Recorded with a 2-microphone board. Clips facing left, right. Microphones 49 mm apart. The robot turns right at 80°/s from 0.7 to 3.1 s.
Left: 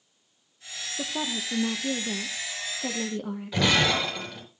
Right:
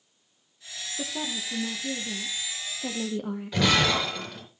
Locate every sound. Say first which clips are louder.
1.0 s a woman speaking: left 2 dB; 15° left, 1.1 m; by 3.8 s 175° right, 1.1 m
3.5 s breaking glass: even; centre (ahead or behind), 5.5 m